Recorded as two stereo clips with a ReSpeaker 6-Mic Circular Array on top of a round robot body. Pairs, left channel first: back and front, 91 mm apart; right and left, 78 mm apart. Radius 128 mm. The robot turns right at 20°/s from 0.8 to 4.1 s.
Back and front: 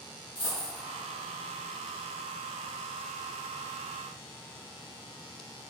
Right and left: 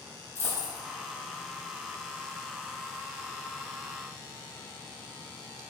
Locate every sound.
0.3 s a dropped coin: 140° right, 1.5 m